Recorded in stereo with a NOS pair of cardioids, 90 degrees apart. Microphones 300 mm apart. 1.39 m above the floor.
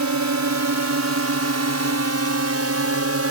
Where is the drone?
70° right; by 3.3 s 50° right.